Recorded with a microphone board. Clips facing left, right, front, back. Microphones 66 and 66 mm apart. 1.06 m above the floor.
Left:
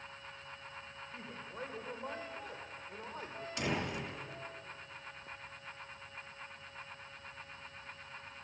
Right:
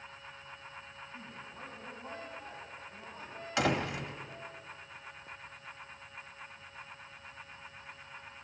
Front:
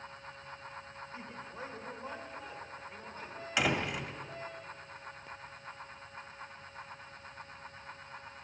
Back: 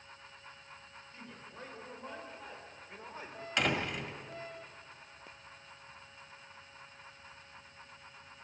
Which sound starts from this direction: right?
A door slam, at 3.6 s.